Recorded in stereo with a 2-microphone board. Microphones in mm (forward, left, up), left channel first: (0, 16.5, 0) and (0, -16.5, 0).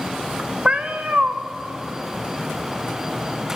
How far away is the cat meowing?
About 0.6 m.